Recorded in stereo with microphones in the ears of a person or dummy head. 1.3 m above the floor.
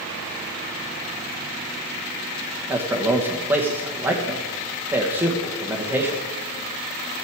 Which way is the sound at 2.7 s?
15° right (ahead or behind).